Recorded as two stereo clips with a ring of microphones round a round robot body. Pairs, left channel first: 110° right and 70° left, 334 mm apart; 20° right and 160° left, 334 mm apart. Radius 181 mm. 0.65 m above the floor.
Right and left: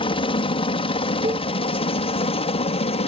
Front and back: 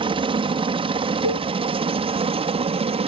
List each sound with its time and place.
0.0 s a helicopter: 155° right
1.2 s a cowbell: 10° right